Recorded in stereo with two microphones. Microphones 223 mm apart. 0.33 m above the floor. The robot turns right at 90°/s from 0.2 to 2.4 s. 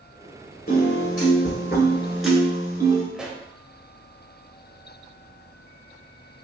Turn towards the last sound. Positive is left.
turn(degrees=-5)  # may be behind; listen again after turning